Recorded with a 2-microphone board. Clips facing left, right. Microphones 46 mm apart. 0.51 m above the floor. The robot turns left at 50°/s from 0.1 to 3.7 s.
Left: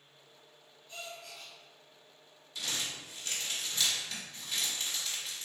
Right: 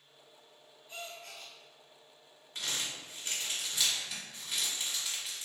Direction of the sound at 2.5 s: 45° right (ahead or behind).